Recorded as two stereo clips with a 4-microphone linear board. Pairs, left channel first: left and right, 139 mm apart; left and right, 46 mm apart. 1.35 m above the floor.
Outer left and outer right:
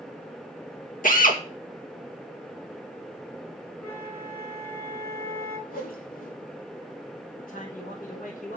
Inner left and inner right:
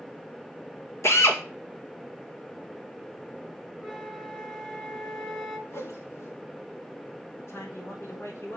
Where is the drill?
75° left (ahead or behind), 2 m.